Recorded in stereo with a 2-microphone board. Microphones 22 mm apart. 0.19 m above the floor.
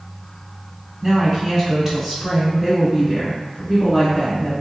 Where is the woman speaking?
20° right (ahead or behind), 1.7 m; by 4.5 s 5° right (ahead or behind), 2 m.